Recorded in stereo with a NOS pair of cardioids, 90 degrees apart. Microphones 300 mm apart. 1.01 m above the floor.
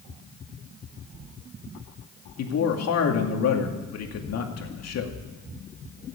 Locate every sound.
2.4 s a man speaking: 60° left, 2.5 m